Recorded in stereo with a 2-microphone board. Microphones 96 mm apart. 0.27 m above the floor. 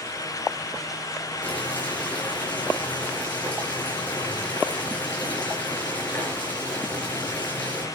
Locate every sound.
1.4 s boiling: 15° left (ahead or behind), 5.5 m